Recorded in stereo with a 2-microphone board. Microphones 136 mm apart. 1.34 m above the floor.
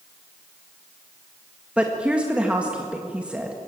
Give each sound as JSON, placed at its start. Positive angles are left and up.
{"t": 1.8, "sound": "a woman speaking", "side_deg": -10, "distance_m": 1.7}